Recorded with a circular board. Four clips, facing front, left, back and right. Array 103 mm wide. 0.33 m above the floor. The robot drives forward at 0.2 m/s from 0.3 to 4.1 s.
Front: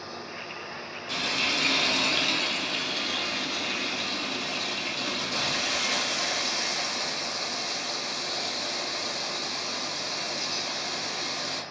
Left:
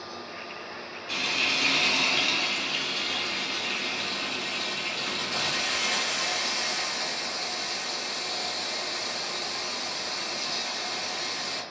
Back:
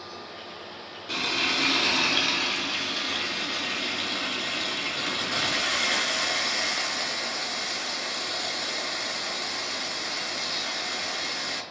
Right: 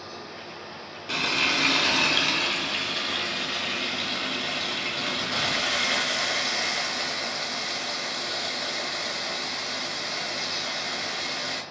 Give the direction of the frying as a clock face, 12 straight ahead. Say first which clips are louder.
Right 5 dB, back 2 dB; 4 o'clock.